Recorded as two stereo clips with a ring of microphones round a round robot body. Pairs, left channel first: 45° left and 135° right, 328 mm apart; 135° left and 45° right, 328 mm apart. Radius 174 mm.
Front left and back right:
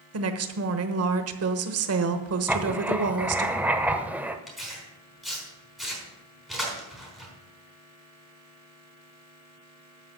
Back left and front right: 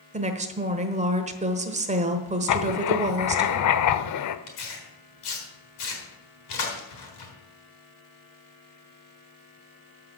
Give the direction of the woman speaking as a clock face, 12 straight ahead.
4 o'clock.